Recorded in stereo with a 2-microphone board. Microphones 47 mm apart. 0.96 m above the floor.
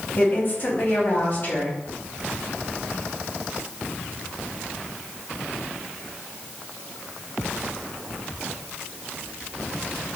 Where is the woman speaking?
50° left (ahead or behind), 1.4 m.